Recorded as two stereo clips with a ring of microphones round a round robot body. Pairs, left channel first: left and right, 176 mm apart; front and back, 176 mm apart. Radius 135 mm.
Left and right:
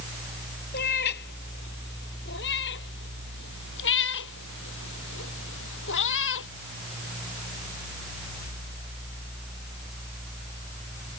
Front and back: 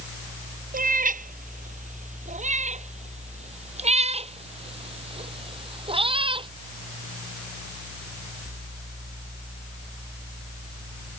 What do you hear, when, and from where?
0.7 s a cat meowing: 140° left; by 6.5 s 120° left